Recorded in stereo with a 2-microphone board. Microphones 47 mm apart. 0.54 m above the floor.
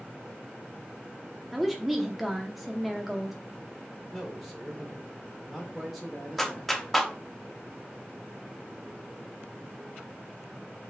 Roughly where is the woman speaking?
Centre.